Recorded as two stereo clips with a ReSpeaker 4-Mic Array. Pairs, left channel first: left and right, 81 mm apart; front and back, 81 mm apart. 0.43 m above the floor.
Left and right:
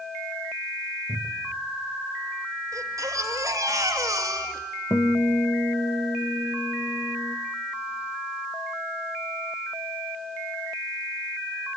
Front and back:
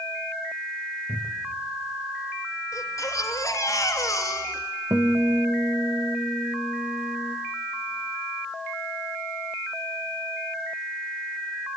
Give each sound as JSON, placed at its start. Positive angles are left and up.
{"t": 1.1, "sound": "a cupboard door", "azimuth_deg": -75, "distance_m": 2.0}
{"t": 2.7, "sound": "a baby crying", "azimuth_deg": -50, "distance_m": 2.5}
{"t": 4.9, "sound": "a guitar", "azimuth_deg": 135, "distance_m": 1.9}